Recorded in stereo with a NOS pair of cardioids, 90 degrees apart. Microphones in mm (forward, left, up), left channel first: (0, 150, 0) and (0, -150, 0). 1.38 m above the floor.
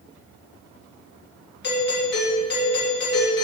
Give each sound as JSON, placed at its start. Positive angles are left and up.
{"t": 1.6, "sound": "a doorbell", "azimuth_deg": 35, "distance_m": 3.0}